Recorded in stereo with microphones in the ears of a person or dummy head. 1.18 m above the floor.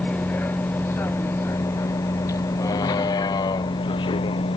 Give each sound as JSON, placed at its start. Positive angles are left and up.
{"t": 0.0, "sound": "a vehicle", "side_deg": 10}